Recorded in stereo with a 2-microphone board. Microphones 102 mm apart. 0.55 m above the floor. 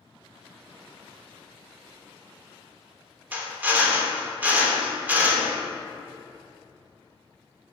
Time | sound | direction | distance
3.3 | a drill | 15° right (ahead or behind) | 0.9 m